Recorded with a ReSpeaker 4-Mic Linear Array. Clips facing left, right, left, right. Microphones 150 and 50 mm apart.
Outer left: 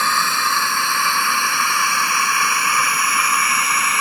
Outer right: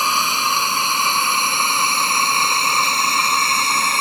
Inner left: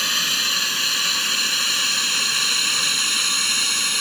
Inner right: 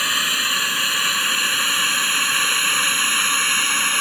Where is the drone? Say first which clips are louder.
Even, inner right 2 dB; 15° right (ahead or behind); by 4.0 s 30° right (ahead or behind).